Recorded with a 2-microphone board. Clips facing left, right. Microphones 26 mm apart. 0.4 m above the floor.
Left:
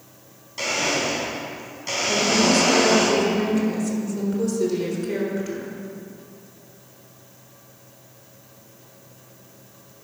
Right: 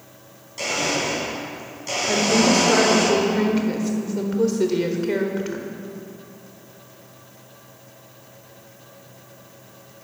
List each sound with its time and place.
0.6 s a blender: 20° left (ahead or behind), 3.5 m
2.1 s a woman speaking: 35° right (ahead or behind), 1.3 m